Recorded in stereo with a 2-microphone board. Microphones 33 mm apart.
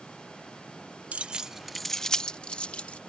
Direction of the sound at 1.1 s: 40° right (ahead or behind).